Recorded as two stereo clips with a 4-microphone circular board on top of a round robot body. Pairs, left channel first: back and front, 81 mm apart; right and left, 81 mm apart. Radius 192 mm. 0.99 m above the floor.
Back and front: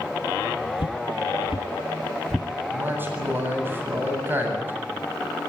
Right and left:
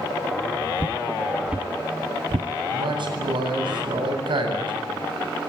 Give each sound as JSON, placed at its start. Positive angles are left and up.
{"t": 0.8, "sound": "footsteps", "azimuth_deg": -160, "distance_m": 1.6}
{"t": 2.7, "sound": "a man speaking", "azimuth_deg": 65, "distance_m": 8.5}